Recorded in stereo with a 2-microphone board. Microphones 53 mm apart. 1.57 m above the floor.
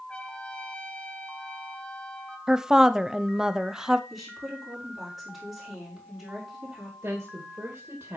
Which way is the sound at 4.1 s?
5° right (ahead or behind).